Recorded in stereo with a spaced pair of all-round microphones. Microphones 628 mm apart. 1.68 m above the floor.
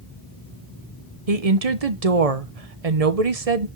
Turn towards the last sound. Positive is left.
turn(degrees=-65)  # may be behind; listen again after turning